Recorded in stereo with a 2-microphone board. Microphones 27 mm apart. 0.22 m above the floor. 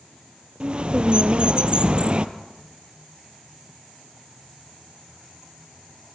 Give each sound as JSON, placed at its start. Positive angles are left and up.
{"t": 0.6, "sound": "a bird", "side_deg": -40, "distance_m": 1.4}